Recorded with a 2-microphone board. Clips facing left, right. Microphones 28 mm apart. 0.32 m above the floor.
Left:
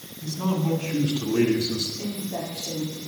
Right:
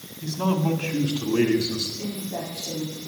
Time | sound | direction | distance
0.2 | a man speaking | 35° right (ahead or behind) | 2.5 m
2.0 | a woman speaking | 40° left (ahead or behind) | 6.5 m